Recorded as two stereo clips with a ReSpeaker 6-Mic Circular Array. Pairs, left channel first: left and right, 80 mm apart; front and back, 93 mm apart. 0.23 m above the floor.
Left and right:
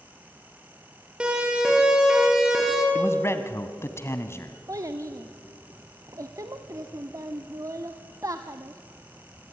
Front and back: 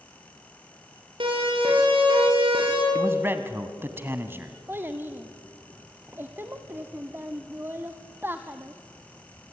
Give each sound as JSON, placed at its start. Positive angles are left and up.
{"t": 1.2, "sound": "a siren", "azimuth_deg": -170, "distance_m": 7.5}
{"t": 3.0, "sound": "a man speaking", "azimuth_deg": 125, "distance_m": 1.7}
{"t": 4.7, "sound": "a child speaking", "azimuth_deg": -120, "distance_m": 1.0}